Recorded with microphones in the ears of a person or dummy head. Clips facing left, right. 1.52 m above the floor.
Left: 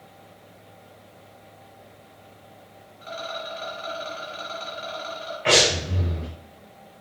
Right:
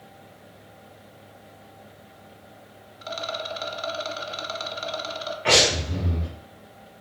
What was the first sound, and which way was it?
A rattle, 50° right (ahead or behind).